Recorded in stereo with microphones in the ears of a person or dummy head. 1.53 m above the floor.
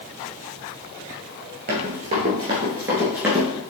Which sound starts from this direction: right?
Running footsteps, at 1.7 s.